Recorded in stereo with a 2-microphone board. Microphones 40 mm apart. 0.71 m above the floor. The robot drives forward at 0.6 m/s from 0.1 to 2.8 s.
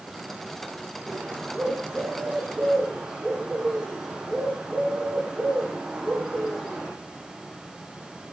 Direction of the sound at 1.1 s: 10° right (ahead or behind).